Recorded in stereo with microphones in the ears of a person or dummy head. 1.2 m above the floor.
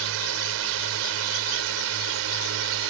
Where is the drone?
75° right (ahead or behind).